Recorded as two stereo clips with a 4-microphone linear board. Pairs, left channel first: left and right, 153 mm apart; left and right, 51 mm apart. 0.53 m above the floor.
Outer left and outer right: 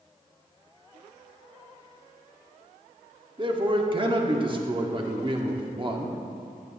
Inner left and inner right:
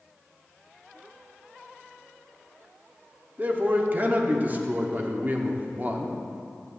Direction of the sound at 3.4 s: 35° right (ahead or behind).